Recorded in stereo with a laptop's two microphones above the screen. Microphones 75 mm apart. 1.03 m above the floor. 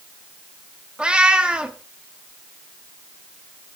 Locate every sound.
1.0 s a cat meowing: 15° right (ahead or behind), 1.0 m